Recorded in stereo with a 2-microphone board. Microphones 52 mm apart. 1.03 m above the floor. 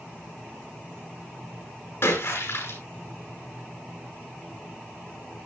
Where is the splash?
50° left (ahead or behind), 9.5 m.